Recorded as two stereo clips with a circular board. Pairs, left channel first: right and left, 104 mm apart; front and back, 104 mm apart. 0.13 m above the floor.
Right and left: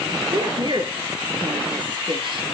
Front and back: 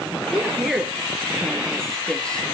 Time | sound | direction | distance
0.3 | a woman speaking | 100° left | 1.9 m